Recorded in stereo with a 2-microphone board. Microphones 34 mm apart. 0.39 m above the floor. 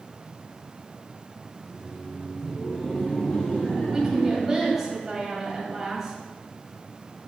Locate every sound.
1.6 s laughter: 10° left (ahead or behind), 1.1 m; by 4.9 s 35° left (ahead or behind), 3.5 m
3.9 s a woman speaking: 10° right (ahead or behind), 1.9 m